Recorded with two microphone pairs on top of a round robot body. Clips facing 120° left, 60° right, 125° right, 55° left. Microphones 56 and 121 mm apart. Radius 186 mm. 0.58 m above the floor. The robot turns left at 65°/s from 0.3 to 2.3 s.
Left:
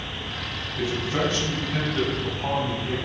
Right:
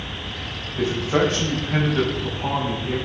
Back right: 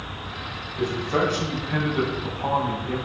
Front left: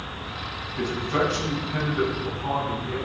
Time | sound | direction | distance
0.8 | a man speaking | 55° right | 6 m